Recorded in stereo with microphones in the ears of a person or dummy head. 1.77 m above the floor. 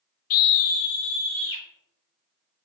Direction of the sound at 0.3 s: 40° left (ahead or behind).